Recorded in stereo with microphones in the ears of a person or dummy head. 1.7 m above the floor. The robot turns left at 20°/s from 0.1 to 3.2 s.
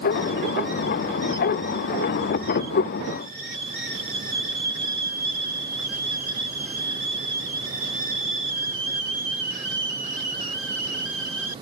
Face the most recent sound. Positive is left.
No sound to turn to.